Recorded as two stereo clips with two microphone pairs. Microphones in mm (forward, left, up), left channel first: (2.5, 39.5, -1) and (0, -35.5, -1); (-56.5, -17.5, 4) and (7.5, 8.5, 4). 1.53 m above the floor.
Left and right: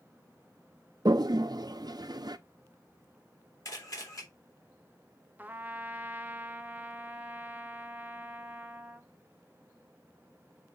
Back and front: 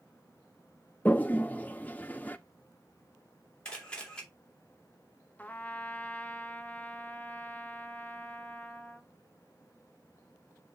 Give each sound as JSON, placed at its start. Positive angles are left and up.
{"t": 1.1, "sound": "a toilet flushing", "azimuth_deg": -100, "distance_m": 0.5}
{"t": 3.6, "sound": "a camera shutter", "azimuth_deg": 130, "distance_m": 2.5}
{"t": 5.4, "sound": "a trumpet", "azimuth_deg": -130, "distance_m": 0.6}